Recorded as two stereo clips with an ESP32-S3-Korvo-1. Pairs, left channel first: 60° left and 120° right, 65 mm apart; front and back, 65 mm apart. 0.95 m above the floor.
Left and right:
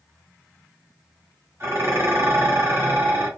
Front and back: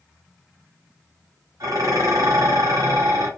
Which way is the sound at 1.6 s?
170° right.